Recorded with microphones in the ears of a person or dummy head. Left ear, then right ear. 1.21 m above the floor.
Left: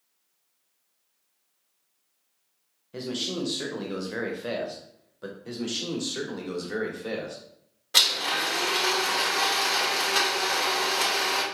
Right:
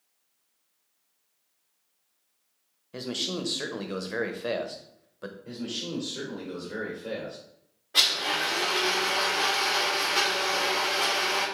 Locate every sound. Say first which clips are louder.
2.9 s a man speaking: left 1 dB; 15° right (ahead or behind), 0.6 m
5.5 s a man speaking: left 4 dB; 55° left (ahead or behind), 1.4 m
7.9 s a blender: left 2 dB; 90° left, 1.6 m